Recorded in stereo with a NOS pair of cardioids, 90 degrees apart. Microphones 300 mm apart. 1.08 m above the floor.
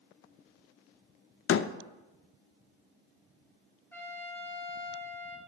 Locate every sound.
1.5 s a door slam: 45° left, 0.6 m
3.9 s a trumpet: 5° left, 2.5 m